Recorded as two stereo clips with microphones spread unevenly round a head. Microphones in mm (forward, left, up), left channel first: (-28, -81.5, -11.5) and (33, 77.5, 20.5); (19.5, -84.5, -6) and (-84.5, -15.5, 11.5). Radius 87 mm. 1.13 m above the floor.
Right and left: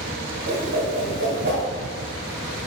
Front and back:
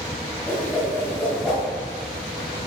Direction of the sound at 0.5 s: 60° left.